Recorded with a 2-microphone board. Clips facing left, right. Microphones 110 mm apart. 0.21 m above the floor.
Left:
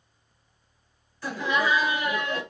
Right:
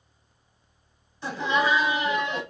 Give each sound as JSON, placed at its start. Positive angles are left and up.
{"t": 1.2, "sound": "laughter", "side_deg": -20, "distance_m": 1.0}